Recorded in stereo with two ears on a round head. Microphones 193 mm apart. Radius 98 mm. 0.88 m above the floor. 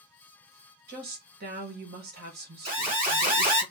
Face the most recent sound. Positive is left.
turn(degrees=-40)  # may be behind; listen again after turning